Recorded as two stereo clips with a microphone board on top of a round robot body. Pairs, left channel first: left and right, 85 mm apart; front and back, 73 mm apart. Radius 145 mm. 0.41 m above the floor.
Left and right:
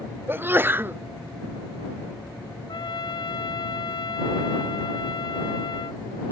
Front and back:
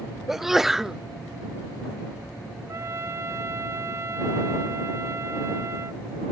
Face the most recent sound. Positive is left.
turn(degrees=125)